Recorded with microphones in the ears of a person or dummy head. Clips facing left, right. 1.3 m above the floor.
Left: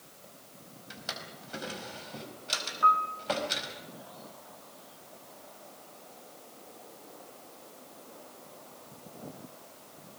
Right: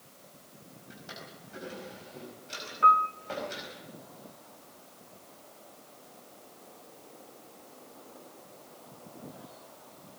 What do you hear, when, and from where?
0.9 s a drawer: 85° left, 4.5 m
2.8 s a piano: 35° right (ahead or behind), 1.7 m